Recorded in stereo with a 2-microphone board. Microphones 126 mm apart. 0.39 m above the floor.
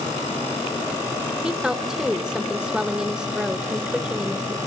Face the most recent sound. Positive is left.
turn(degrees=-5)  # may be behind; listen again after turning